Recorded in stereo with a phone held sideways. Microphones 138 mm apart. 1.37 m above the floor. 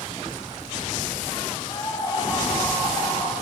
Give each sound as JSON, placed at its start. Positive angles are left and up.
{"t": 1.7, "sound": "a scream", "side_deg": 30, "distance_m": 8.5}